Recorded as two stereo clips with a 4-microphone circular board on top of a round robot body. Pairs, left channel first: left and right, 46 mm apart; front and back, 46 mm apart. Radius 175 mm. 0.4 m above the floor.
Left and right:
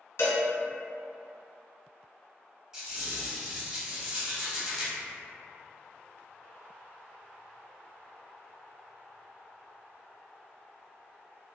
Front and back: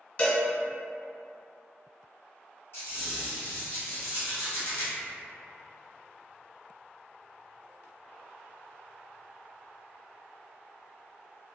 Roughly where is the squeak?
Ahead.